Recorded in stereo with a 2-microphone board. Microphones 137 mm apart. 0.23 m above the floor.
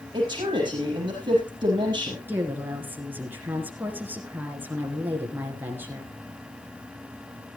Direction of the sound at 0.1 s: 35° right (ahead or behind).